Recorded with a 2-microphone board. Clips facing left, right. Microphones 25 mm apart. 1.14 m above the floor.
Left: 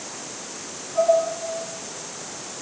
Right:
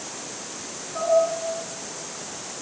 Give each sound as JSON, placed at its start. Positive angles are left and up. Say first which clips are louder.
{"t": 0.9, "sound": "dishes clattering", "louder": "left 6 dB", "side_deg": -35, "distance_m": 9.0}